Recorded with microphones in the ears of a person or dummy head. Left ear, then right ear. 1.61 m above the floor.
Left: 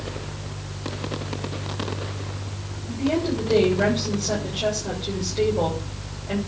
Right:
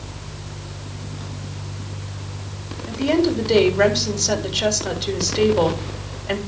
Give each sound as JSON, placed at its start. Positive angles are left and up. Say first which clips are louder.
{"t": 2.9, "sound": "a woman speaking", "louder": "right 5 dB", "side_deg": -75, "distance_m": 3.5}